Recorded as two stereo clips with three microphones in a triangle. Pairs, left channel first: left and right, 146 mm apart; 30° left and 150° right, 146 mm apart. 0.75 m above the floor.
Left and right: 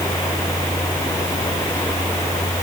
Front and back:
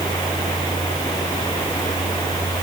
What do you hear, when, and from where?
Only background noise.